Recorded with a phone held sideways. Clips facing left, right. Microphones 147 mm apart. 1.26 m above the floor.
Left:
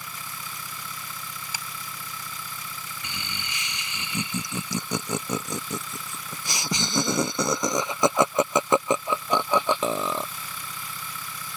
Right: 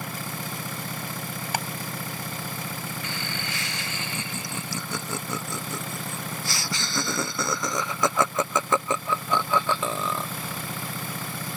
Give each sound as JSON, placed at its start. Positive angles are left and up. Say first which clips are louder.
{"t": 0.0, "sound": "an engine running", "louder": "right 7 dB", "side_deg": -55}
{"t": 1.5, "sound": "ticking", "louder": "right 13 dB", "side_deg": -60}
{"t": 3.0, "sound": "laughter", "louder": "right 5 dB", "side_deg": 20}